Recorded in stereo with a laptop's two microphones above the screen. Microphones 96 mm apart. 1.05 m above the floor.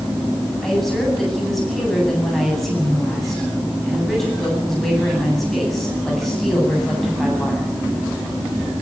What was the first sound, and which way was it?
A woman speaking, 5° left (ahead or behind).